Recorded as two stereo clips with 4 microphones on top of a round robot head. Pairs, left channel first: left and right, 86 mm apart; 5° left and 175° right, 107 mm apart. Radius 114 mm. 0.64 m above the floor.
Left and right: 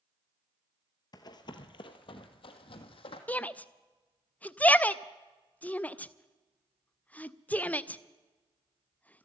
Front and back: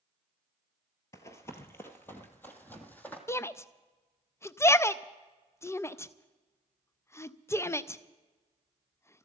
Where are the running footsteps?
60° left, 0.8 m; by 3.2 s 80° left, 1.7 m.